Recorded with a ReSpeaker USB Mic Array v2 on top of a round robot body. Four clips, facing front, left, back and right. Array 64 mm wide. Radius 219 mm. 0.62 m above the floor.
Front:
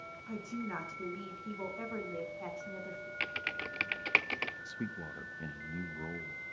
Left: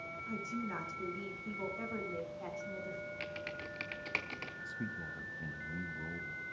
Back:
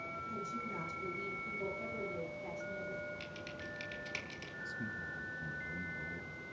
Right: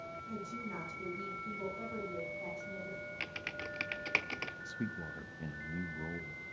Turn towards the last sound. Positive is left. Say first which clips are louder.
# even, front 1 dB
turn(degrees=-20)